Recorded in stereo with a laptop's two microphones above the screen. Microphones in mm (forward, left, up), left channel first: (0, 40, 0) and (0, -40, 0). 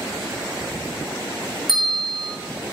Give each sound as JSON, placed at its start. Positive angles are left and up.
{"t": 1.7, "sound": "a bell", "side_deg": 60, "distance_m": 0.7}